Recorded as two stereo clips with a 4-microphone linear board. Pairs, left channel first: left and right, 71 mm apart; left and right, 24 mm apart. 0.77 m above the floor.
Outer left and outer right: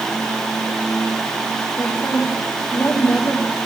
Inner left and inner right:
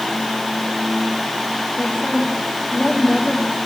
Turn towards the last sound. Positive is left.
turn(degrees=50)  # may be behind; listen again after turning